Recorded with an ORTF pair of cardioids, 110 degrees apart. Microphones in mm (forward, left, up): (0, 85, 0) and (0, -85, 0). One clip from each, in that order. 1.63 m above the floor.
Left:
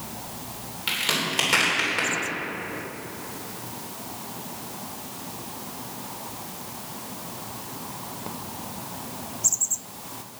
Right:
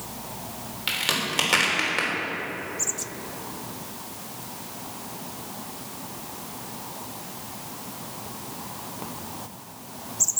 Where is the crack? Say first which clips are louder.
Even; 10° right, 3.5 m.